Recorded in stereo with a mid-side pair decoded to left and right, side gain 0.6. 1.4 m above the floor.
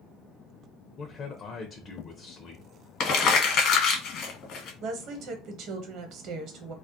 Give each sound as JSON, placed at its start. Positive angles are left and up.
{"t": 1.0, "sound": "a man speaking", "azimuth_deg": 45, "distance_m": 0.5}
{"t": 3.0, "sound": "crumpling", "azimuth_deg": 60, "distance_m": 1.1}
{"t": 4.8, "sound": "a woman speaking", "azimuth_deg": -65, "distance_m": 0.8}